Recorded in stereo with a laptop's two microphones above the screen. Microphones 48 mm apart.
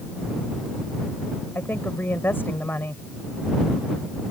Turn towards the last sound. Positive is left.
turn(degrees=50)  # may be behind; listen again after turning